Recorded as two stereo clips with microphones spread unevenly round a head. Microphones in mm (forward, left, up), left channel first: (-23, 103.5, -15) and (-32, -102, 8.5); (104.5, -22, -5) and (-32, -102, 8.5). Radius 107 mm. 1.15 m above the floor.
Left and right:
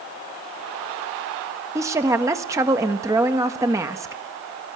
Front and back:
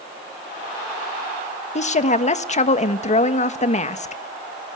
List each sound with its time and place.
1.8 s a woman speaking: 15° right, 1.3 m